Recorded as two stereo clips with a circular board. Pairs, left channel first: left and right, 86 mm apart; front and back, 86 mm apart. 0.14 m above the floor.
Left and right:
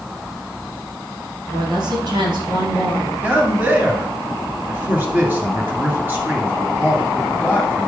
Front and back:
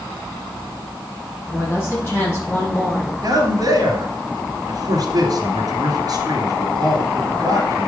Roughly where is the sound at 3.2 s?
Behind right.